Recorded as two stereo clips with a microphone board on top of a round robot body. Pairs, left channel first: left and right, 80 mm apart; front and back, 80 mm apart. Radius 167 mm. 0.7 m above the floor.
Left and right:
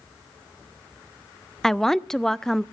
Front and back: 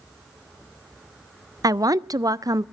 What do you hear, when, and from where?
1.6 s a woman speaking: 175° left, 0.6 m